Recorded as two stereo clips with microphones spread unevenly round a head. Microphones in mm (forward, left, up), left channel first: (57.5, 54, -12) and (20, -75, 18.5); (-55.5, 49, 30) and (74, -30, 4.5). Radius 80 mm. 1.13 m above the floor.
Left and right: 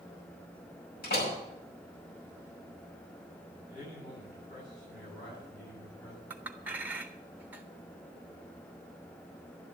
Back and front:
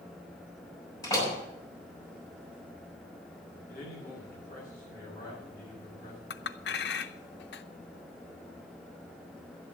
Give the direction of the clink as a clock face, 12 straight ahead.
6 o'clock.